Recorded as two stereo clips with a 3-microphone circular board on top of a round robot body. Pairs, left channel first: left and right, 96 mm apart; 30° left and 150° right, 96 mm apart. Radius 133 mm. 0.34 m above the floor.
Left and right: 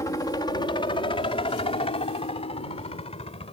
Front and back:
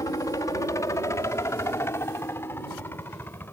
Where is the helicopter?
60° left; by 3.5 s 100° left.